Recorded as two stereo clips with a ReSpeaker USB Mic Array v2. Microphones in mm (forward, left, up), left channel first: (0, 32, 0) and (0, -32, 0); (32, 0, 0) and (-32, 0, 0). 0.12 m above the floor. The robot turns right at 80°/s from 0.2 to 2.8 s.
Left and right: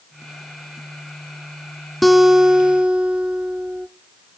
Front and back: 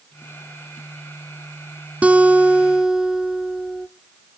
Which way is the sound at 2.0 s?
Straight behind.